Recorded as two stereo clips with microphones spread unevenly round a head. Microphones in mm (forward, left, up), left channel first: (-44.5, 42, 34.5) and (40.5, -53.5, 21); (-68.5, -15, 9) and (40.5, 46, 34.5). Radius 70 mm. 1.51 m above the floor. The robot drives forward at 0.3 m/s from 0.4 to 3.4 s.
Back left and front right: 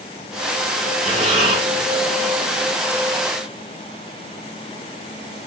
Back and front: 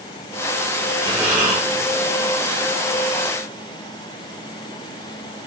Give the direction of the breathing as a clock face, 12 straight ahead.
1 o'clock.